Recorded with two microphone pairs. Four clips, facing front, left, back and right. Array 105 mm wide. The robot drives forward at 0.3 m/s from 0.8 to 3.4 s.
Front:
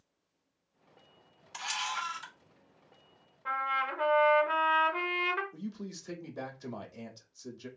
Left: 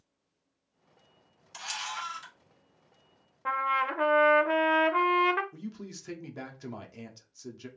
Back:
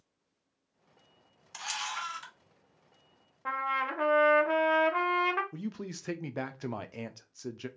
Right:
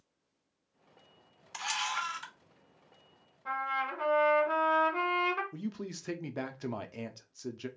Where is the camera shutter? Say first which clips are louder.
Right 3 dB, front 2 dB; 80° right, 0.9 m; by 2.3 s 115° right, 0.9 m.